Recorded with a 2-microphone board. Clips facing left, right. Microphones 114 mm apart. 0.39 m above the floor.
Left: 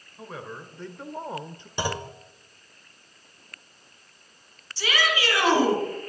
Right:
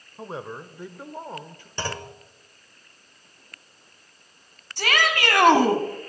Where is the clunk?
15° left (ahead or behind), 1.2 m.